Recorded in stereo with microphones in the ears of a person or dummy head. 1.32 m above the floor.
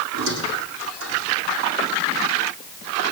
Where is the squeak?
85° right, 10 m.